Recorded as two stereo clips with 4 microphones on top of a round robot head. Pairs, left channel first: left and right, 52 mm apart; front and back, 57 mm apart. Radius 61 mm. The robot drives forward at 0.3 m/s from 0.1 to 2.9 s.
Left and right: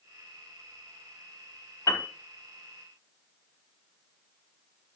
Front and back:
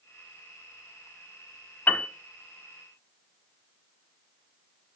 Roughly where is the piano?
Ahead left.